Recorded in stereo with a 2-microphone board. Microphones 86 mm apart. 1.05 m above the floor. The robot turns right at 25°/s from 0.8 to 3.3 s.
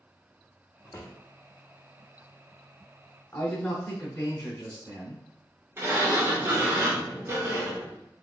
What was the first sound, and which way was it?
A drawer, 40° left (ahead or behind).